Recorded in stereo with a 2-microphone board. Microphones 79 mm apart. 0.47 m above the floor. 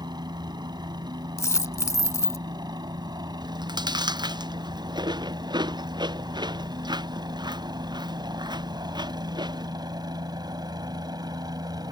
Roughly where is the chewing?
Right.